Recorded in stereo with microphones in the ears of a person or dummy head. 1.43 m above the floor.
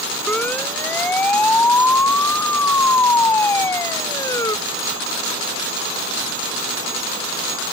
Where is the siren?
15° left (ahead or behind); by 4.6 s 25° left (ahead or behind).